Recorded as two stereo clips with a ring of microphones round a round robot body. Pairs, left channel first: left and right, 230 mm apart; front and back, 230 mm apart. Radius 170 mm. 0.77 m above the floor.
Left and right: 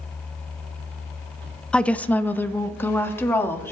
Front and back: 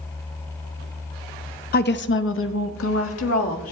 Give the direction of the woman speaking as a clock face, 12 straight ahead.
12 o'clock.